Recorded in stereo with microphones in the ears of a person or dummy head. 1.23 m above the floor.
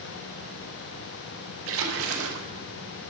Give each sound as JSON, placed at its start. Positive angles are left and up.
{"t": 1.7, "sound": "a splash", "side_deg": -80, "distance_m": 0.9}